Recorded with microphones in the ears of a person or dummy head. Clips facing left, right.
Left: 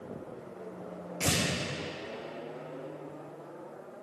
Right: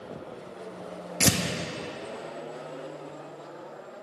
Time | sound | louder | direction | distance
1.2 | tearing paper | right 6 dB | 70° right (ahead or behind) | 0.5 m